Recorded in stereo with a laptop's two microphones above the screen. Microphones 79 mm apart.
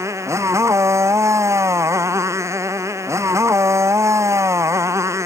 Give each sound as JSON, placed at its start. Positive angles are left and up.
{"t": 0.0, "sound": "a motorcycle", "side_deg": -40}